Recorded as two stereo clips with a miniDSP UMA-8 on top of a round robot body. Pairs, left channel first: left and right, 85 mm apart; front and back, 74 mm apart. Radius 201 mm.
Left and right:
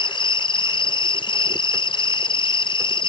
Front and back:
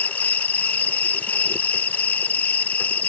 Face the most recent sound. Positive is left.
turn(degrees=70)